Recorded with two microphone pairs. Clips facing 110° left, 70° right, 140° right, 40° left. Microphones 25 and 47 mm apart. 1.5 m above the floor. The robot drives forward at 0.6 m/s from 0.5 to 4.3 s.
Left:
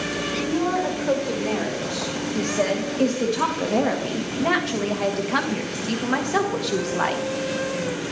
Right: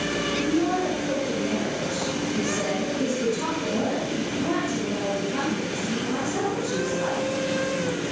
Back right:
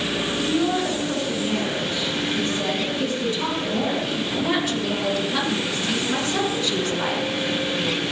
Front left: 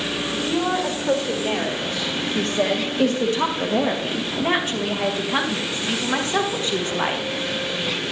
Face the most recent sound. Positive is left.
turn(degrees=95)